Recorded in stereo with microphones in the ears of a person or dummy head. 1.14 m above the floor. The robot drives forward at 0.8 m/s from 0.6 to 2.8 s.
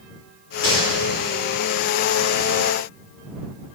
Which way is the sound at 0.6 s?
80° left.